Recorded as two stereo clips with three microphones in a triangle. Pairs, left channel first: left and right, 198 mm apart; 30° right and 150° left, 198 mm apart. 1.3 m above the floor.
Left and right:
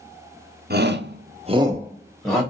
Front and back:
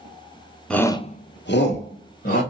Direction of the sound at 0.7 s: 115° right.